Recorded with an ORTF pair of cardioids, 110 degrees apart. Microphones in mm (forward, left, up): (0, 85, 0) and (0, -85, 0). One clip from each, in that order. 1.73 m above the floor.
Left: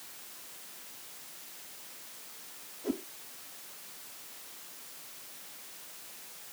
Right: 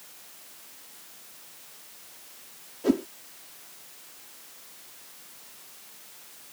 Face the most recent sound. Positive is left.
turn(degrees=-65)